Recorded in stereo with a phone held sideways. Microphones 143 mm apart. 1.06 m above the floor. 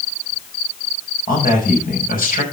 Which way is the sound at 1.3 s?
90° left.